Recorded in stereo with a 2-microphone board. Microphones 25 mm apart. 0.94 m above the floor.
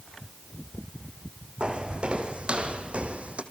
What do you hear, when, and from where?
1.6 s footsteps: 45° right (ahead or behind), 2.5 m; by 3.4 s 60° right (ahead or behind), 2 m